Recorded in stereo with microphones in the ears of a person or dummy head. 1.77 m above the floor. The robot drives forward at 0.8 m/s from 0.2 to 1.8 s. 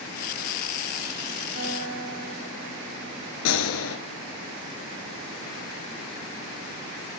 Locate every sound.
1.5 s a guitar: 60° right (ahead or behind), 3.5 m
3.5 s a gunshot: 75° left (ahead or behind), 1.5 m